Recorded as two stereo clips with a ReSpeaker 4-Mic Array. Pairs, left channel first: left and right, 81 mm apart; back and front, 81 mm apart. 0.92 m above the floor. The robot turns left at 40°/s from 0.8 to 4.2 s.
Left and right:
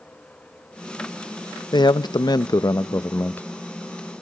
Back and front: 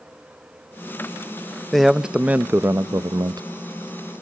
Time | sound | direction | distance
1.7 | a man speaking | 95° left | 0.6 m